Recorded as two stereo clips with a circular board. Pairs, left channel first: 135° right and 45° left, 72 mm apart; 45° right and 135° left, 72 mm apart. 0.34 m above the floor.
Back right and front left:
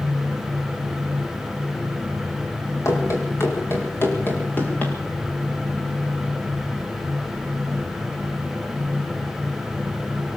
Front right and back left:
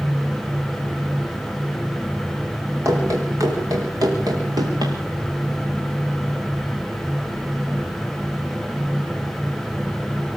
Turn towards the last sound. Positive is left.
turn(degrees=155)